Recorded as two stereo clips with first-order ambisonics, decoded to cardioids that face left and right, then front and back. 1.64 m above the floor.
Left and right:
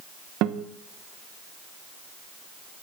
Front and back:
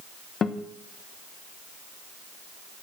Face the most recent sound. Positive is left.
turn(degrees=-65)